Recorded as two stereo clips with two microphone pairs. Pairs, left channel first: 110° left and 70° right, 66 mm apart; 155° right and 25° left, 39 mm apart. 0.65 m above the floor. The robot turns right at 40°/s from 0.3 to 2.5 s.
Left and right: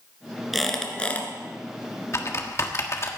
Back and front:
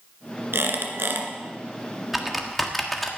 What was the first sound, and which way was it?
A squeak, 15° left.